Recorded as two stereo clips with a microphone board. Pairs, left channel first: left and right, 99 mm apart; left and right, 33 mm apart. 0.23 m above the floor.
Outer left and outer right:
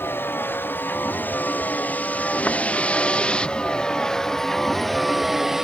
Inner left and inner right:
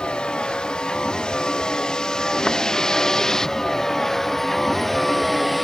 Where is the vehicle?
25° left (ahead or behind); by 5.7 s 5° right (ahead or behind).